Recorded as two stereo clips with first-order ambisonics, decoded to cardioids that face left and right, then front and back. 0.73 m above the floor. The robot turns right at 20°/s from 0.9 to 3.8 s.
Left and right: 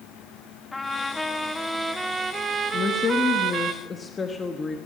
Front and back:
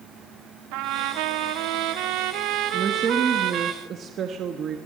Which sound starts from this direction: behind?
A trumpet, at 0.7 s.